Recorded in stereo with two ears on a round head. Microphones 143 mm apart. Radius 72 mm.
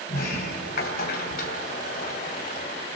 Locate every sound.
0.1 s a sliding door: 65° left (ahead or behind), 2.5 m